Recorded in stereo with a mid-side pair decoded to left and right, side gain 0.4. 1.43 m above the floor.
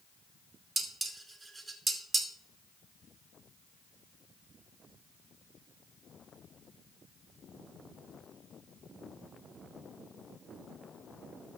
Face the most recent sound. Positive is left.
turn(degrees=-30)